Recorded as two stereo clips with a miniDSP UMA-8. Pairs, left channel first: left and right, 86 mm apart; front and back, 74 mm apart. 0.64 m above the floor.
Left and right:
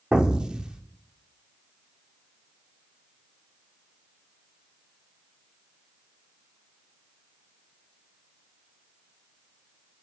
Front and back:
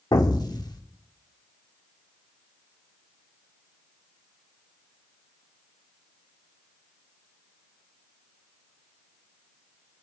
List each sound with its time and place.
0.1 s an explosion: 10° right, 1.0 m